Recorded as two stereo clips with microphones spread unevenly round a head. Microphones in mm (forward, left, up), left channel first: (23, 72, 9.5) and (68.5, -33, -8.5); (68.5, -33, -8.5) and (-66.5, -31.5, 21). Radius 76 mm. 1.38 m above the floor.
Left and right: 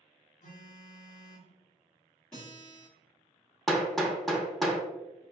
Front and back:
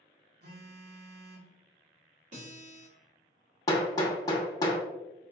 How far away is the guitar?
About 1.9 m.